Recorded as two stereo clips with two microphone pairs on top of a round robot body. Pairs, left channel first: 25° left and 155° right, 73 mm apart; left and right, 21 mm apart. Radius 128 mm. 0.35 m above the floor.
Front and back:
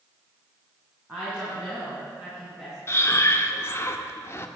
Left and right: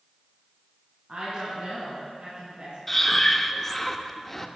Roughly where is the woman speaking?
Right.